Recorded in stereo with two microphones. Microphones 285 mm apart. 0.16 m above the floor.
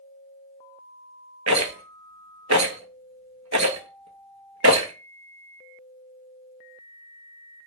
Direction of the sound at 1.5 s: 60° right (ahead or behind).